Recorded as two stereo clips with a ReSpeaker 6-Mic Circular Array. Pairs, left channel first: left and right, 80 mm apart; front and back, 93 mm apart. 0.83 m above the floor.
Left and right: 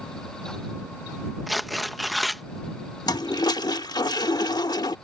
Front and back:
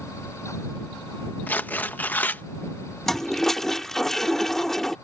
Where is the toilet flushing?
85° left.